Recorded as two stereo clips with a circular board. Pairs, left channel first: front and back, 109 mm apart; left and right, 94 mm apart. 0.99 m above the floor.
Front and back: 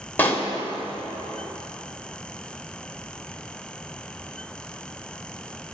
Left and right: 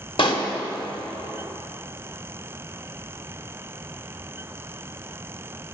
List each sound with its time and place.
0.2 s a pop: 70° left, 1.4 m